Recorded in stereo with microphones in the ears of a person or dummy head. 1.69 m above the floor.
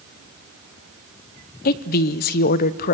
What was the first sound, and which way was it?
A woman speaking, 50° left (ahead or behind).